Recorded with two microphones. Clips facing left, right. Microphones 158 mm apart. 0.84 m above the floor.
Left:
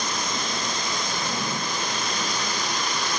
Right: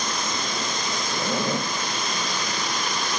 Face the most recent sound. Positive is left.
turn(degrees=-75)  # may be behind; listen again after turning